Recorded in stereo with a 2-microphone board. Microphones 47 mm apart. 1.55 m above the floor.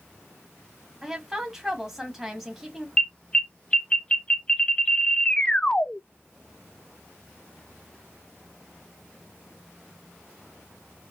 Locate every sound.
1.0 s a woman speaking: 5° right (ahead or behind), 1.8 m
3.0 s an alarm: 20° left (ahead or behind), 0.5 m